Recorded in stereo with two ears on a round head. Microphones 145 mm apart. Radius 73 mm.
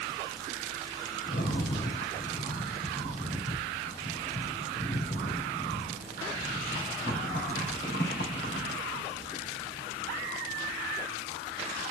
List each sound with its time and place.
1.2 s a rattle: 65° left (ahead or behind), 3.5 m